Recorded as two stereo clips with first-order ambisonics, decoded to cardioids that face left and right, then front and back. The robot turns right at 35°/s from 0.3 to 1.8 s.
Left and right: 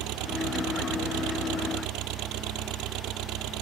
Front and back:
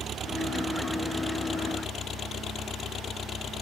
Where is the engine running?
115° right; by 3.6 s 60° right.